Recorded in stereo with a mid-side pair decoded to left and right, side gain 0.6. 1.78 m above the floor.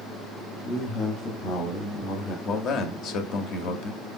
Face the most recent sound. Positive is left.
turn(degrees=55)